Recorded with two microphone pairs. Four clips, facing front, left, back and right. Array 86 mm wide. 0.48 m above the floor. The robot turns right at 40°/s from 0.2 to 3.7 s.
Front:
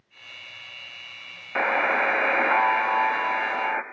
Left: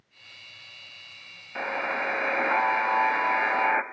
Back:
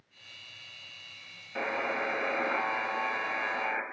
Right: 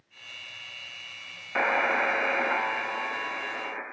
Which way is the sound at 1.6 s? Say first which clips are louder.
Right 4 dB, front 9 dB; 30° right.